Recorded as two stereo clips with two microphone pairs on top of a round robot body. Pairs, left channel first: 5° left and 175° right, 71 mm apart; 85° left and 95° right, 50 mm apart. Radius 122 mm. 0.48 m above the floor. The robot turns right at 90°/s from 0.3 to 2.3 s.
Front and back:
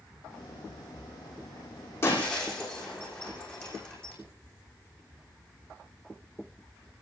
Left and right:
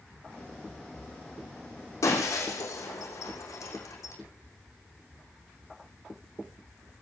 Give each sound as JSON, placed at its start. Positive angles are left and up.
{"t": 2.0, "sound": "breaking glass", "azimuth_deg": 55, "distance_m": 6.5}